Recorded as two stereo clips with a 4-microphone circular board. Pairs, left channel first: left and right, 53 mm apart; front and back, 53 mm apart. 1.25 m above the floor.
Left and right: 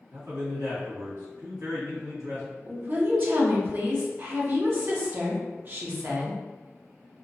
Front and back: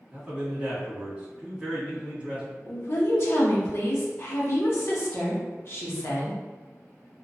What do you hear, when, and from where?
0.1 s a man speaking: 100° right, 1.9 m
2.7 s a woman speaking: 45° right, 0.8 m